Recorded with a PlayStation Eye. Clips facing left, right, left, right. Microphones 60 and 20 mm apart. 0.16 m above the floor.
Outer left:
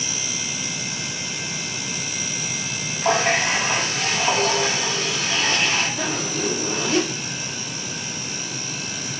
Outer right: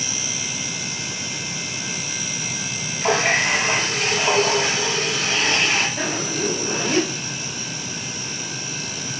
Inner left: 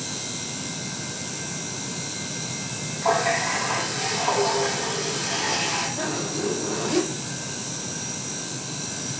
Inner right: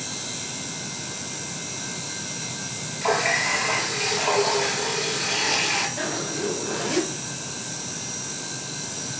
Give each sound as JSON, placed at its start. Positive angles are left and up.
{"t": 3.0, "sound": "a running tap", "side_deg": -65, "distance_m": 2.0}
{"t": 6.0, "sound": "a zipper", "side_deg": -55, "distance_m": 2.0}